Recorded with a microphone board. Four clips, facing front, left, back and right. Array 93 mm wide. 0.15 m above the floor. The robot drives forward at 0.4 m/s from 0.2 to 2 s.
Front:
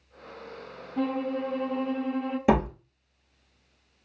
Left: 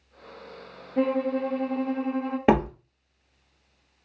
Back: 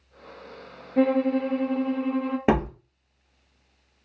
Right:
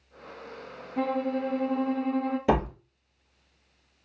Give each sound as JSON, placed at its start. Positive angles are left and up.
{"t": 1.0, "sound": "a violin", "azimuth_deg": 155, "distance_m": 0.6}
{"t": 2.5, "sound": "a door slam", "azimuth_deg": 125, "distance_m": 1.6}